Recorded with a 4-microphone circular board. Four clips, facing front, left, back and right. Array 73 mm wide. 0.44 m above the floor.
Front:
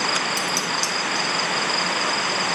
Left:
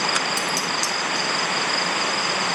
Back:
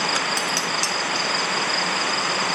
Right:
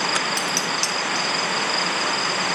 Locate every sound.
0.4 s dishes clattering: 155° right, 2.0 m